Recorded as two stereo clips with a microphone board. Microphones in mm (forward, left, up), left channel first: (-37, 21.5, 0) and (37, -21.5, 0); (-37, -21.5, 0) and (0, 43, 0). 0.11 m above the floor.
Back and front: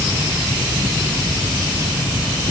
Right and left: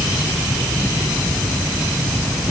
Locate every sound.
Only background noise.